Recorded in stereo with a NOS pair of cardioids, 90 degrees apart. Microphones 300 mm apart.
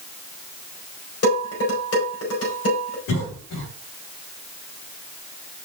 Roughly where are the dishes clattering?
Ahead left.